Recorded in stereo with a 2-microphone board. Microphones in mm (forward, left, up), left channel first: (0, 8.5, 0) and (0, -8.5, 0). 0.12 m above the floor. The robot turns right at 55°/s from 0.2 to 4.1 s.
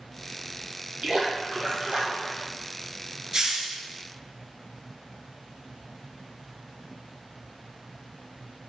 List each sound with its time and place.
1.0 s a splash: 105° right, 1.4 m; by 2.5 s 25° right, 1.4 m
3.3 s a hiss: 35° right (ahead or behind), 0.6 m; by 3.8 s 45° right (ahead or behind), 0.6 m